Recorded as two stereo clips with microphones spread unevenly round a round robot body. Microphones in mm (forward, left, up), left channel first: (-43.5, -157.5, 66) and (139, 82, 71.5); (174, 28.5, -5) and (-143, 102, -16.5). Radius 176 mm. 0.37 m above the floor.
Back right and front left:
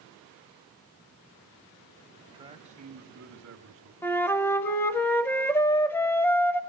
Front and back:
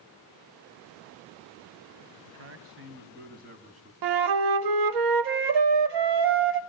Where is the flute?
150° left, 0.7 m.